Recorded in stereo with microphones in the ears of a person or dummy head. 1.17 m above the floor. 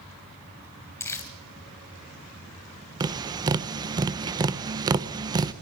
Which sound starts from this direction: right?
Tapping, at 3.0 s.